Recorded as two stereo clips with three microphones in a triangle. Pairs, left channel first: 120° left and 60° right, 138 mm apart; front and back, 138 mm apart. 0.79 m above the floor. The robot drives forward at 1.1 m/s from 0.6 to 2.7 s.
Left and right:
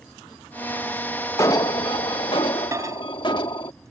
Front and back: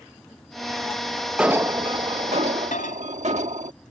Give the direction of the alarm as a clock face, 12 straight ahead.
9 o'clock.